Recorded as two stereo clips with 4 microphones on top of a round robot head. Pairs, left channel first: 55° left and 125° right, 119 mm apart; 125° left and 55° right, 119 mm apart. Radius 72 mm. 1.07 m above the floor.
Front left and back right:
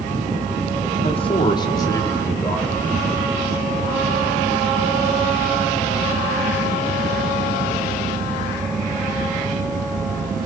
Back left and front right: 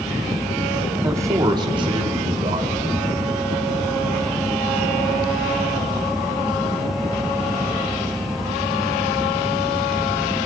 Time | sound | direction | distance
1.0 | a man speaking | 15° left | 1.8 m